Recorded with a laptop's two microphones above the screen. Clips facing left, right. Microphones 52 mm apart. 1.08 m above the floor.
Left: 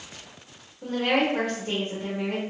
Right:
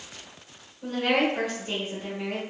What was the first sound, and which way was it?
A woman speaking, 45° left (ahead or behind).